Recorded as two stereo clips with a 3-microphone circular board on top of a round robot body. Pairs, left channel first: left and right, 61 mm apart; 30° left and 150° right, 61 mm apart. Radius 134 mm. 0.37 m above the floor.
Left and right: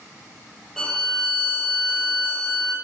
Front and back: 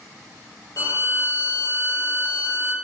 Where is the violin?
5° left, 2.5 m.